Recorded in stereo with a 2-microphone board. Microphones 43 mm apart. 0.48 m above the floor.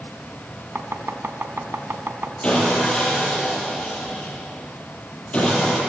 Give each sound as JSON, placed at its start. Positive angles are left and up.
{"t": 0.8, "sound": "chopping", "side_deg": -65, "distance_m": 1.8}
{"t": 2.4, "sound": "sawing", "side_deg": 25, "distance_m": 9.0}